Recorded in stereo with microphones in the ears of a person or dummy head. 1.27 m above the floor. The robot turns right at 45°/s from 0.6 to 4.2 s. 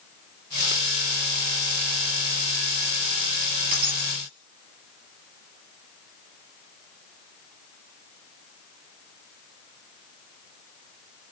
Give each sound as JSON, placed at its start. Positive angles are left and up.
{"t": 3.7, "sound": "breaking glass", "side_deg": -55, "distance_m": 4.0}